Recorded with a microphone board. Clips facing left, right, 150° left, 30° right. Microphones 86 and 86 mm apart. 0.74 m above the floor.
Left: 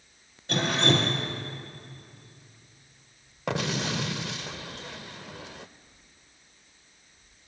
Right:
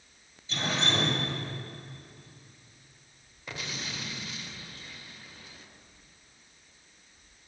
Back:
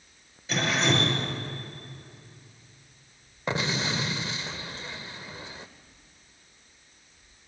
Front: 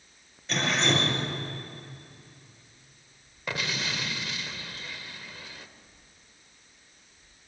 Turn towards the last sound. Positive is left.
turn(degrees=90)